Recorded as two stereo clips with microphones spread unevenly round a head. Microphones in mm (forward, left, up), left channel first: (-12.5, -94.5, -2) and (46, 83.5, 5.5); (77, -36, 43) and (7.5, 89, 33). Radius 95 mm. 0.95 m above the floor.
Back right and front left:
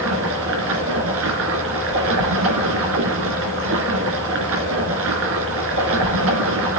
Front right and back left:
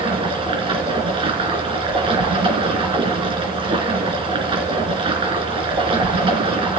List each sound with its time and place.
0.0 s running water: 65° left, 2.5 m